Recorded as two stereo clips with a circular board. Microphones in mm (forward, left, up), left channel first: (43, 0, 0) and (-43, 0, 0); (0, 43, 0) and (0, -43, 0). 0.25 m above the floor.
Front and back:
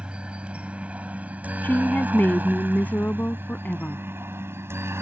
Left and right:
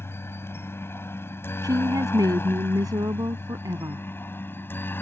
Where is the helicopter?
115° left; by 5.0 s 140° left.